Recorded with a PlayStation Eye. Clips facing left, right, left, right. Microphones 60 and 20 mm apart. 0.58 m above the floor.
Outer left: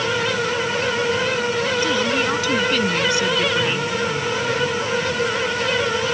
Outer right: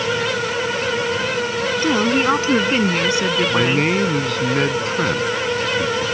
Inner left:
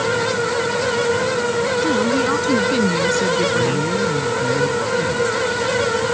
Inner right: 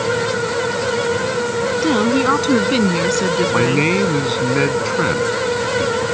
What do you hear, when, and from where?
1.8 s a woman speaking: 35° right (ahead or behind); by 3.9 s 25° right (ahead or behind)
3.5 s a man speaking: 70° right (ahead or behind)